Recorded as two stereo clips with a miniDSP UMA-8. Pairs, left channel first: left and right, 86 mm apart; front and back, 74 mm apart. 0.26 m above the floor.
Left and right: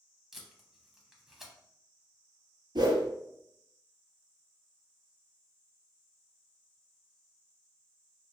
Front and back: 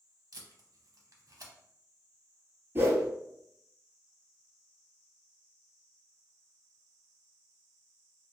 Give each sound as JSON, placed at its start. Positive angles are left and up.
{"t": 0.3, "sound": "tape being pulled", "azimuth_deg": -175, "distance_m": 0.6}
{"t": 2.8, "sound": "a whoosh", "azimuth_deg": -120, "distance_m": 0.7}